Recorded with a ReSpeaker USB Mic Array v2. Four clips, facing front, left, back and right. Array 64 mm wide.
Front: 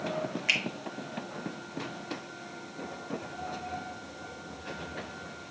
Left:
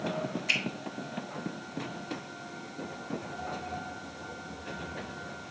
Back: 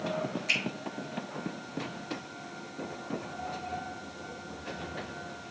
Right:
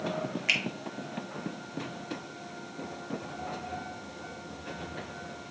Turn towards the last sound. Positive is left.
turn(degrees=-45)